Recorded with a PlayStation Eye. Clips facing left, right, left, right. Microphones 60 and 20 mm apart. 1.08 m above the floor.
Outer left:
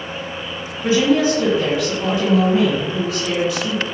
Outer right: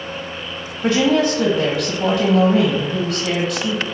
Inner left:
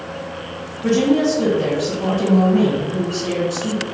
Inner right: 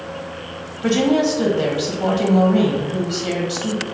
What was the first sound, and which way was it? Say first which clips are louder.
A woman speaking: even, inner left 1 dB; 55° right (ahead or behind).